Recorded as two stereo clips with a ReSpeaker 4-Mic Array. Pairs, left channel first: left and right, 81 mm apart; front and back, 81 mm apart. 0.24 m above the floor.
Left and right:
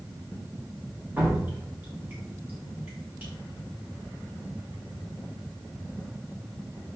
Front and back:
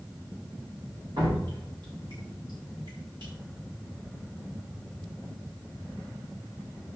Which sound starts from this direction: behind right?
Dripping, at 1.2 s.